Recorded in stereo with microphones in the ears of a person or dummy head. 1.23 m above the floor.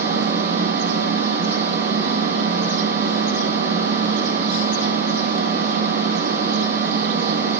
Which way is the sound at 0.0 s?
55° right (ahead or behind).